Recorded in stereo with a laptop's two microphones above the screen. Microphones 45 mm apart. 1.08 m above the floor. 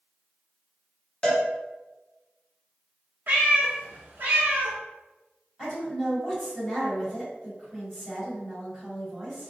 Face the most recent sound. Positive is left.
turn(degrees=10)  # may be behind; listen again after turning